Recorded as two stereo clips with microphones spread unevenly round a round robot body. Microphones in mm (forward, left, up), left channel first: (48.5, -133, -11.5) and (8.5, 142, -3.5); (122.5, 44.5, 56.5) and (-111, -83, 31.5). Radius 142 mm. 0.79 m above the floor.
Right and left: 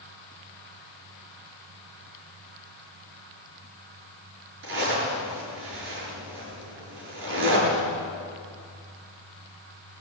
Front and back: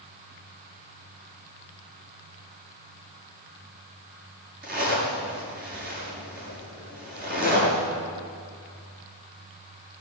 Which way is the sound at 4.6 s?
150° left.